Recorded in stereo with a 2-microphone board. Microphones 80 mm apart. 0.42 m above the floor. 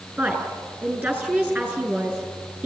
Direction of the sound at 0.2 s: 15° right (ahead or behind).